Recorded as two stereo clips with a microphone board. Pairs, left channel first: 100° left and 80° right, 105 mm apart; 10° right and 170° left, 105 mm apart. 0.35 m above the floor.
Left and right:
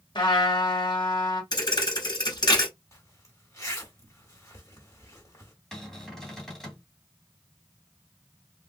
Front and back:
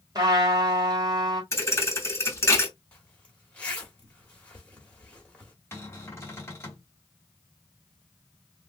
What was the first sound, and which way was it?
A trumpet, 130° left.